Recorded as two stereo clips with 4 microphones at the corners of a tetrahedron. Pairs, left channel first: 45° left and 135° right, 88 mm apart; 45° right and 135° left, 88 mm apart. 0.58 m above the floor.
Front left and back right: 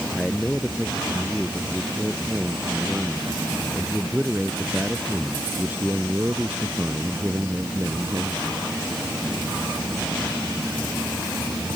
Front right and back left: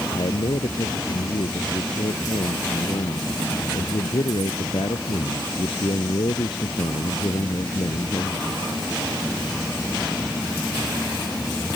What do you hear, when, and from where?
0.1 s a man speaking: 40° right; by 8.5 s 80° right